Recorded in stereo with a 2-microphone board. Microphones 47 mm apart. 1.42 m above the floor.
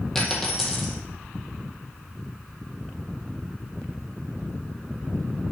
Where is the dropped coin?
5° left (ahead or behind), 1.8 m.